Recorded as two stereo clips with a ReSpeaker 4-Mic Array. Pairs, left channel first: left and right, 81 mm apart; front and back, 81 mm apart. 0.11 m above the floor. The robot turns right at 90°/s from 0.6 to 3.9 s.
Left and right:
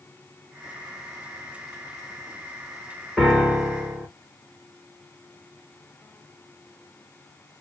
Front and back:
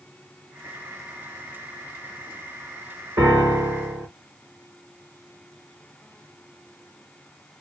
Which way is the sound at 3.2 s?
165° left.